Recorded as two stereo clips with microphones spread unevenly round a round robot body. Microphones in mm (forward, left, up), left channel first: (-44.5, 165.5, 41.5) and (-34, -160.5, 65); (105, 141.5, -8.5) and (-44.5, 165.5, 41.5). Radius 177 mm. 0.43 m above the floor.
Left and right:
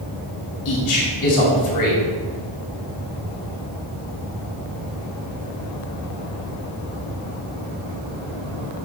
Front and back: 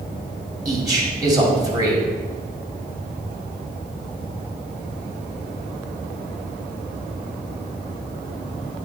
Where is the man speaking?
95° left, 3 m.